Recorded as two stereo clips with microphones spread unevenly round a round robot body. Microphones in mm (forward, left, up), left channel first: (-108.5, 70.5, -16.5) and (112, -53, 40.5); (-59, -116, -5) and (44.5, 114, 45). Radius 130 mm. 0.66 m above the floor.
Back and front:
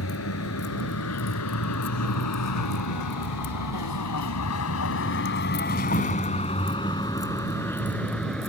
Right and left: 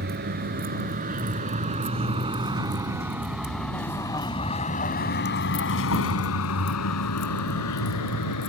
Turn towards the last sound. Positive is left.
turn(degrees=-120)